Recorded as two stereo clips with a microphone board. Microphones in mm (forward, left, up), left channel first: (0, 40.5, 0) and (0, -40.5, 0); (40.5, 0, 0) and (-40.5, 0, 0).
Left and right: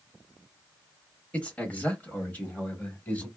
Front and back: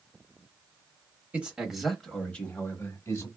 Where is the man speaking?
135° left, 1.0 m; by 3.3 s 30° left, 1.3 m.